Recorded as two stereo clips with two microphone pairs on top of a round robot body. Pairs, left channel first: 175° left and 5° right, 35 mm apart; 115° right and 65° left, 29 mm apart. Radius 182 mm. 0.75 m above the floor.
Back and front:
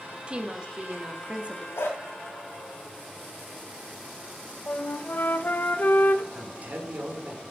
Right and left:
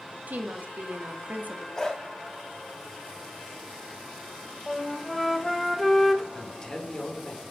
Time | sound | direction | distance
0.3 | a woman speaking | 55° left | 1.9 m
1.8 | a dog barking | 170° left | 1.4 m
4.7 | a flute | 165° left | 1.3 m
6.3 | a man speaking | 50° right | 3.5 m